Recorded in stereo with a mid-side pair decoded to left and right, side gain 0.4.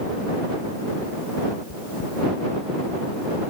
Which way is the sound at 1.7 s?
55° left.